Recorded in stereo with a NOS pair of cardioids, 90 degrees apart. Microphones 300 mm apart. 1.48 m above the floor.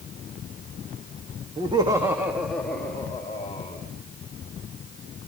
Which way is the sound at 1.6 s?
20° right.